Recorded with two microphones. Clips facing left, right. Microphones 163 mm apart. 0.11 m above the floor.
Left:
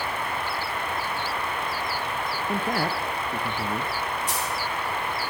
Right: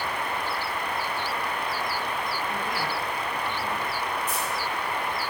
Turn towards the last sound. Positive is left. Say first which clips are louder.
# even
turn(degrees=80)